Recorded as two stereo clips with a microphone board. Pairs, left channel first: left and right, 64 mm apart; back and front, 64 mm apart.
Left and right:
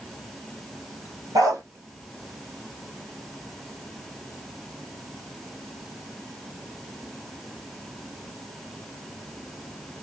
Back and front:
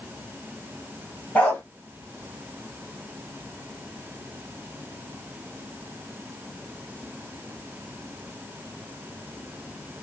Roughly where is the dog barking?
Right.